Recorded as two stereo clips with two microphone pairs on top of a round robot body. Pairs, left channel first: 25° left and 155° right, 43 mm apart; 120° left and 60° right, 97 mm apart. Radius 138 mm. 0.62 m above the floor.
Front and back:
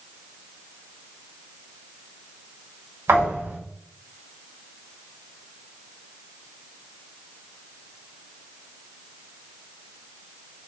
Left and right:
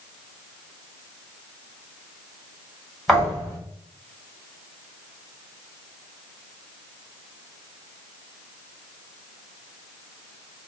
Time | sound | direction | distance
3.1 | a thud | 150° right | 1.6 m